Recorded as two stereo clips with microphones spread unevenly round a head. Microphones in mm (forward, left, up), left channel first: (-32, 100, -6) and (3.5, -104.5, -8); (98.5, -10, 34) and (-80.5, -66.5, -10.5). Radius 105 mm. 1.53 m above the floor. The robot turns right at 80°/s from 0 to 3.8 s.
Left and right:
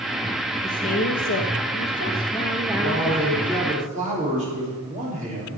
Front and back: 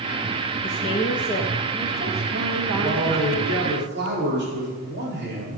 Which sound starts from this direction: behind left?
A man speaking, at 2.8 s.